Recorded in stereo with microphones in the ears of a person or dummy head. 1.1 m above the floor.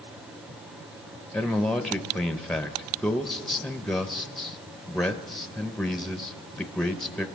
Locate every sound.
1.3 s a man speaking: centre (ahead or behind), 0.6 m